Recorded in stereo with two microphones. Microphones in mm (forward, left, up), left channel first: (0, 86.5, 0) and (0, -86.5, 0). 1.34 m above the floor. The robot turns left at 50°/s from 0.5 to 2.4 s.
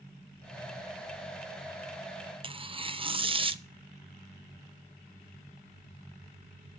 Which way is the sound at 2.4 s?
30° right (ahead or behind).